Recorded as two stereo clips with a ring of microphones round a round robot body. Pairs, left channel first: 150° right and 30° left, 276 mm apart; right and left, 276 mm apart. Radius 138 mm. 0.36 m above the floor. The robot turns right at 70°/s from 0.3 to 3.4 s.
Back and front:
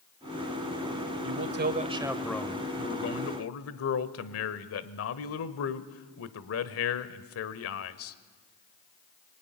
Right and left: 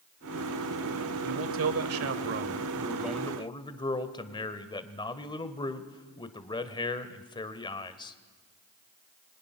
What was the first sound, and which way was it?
A man speaking, 50° left.